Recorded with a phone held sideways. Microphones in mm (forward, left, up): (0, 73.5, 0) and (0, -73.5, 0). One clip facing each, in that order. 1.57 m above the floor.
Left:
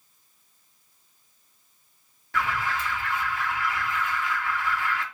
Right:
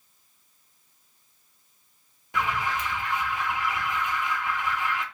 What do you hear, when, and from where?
2.3 s an alarm: 15° right (ahead or behind), 0.8 m